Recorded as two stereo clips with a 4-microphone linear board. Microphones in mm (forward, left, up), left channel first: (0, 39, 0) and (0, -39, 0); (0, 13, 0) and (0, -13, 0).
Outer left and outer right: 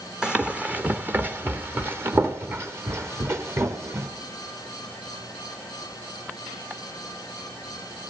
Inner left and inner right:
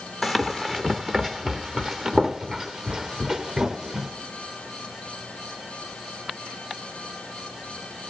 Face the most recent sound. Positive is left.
turn(degrees=-35)  # may be behind; listen again after turning